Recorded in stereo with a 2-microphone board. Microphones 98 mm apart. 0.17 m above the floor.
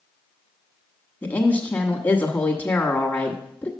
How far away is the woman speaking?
About 1.2 m.